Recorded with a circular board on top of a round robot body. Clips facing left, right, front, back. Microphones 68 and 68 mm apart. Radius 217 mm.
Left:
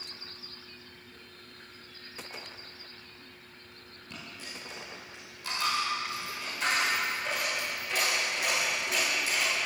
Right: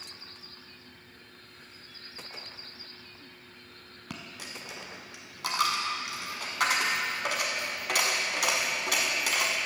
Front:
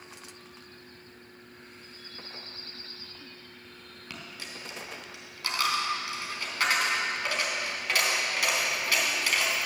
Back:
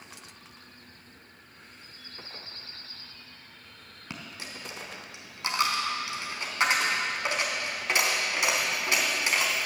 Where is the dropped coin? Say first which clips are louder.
Right 2 dB, back 2 dB; 110° right, 1.2 m.